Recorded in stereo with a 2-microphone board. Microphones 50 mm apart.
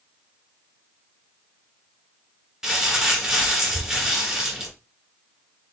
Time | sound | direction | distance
2.6 | crumpling | 15° right (ahead or behind) | 1.3 m